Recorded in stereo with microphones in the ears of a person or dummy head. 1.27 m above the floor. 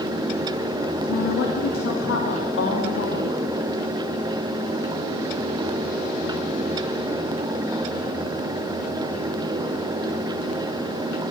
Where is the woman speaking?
85° left, 1.9 m.